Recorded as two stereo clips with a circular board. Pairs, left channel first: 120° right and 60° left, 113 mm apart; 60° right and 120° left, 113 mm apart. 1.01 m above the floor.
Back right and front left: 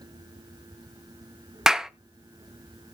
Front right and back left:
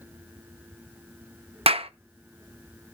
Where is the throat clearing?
No throat clearing in this recording.